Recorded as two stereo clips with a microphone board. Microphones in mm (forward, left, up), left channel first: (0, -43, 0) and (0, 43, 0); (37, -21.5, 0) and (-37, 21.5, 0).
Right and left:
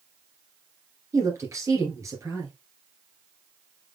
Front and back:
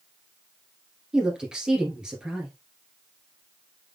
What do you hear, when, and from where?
1.1 s a woman speaking: 75° left, 2 m